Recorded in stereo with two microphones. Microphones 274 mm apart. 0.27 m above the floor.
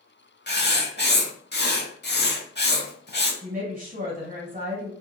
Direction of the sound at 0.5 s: 40° left (ahead or behind).